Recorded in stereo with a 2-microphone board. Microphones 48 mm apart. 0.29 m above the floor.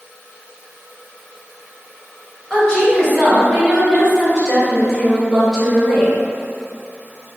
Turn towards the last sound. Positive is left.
turn(degrees=-10)  # may be behind; listen again after turning